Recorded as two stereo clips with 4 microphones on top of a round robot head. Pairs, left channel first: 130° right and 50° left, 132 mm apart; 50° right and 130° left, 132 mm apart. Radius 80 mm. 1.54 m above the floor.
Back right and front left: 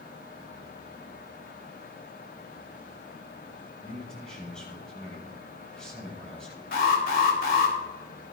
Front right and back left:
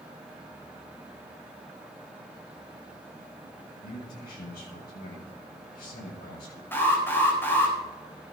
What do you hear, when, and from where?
3.8 s a man speaking: 45° right, 7 m
6.7 s an alarm: 125° right, 4 m